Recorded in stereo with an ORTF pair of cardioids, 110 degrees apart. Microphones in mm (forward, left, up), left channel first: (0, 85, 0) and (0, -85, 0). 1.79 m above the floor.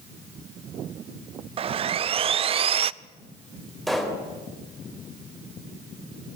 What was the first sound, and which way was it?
Sawing, 35° right.